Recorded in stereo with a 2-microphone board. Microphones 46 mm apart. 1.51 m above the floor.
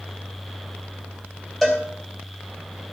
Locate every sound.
1.6 s a cowbell: 10° left (ahead or behind), 3 m